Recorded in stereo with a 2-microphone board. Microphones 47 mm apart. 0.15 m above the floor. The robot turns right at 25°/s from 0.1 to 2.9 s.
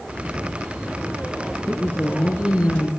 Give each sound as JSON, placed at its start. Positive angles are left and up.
{"t": 1.7, "sound": "a woman speaking", "azimuth_deg": 45, "distance_m": 2.0}